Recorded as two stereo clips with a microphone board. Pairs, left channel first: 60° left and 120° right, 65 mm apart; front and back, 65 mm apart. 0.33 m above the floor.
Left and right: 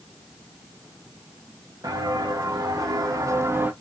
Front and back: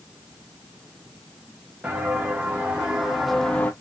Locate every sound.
1.8 s footsteps: 110° right, 2 m; by 3.7 s 60° right, 0.6 m